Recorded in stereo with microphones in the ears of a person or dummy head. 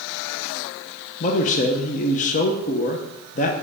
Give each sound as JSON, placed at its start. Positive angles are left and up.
{"t": 1.2, "sound": "a man speaking", "side_deg": 40, "distance_m": 0.9}